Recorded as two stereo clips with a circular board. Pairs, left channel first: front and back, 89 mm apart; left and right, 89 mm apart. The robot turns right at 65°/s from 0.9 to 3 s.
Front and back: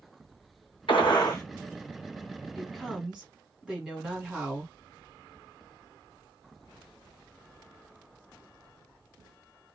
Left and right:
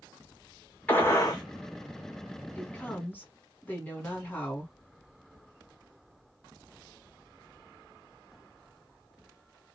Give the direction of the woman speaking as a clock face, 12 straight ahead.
9 o'clock.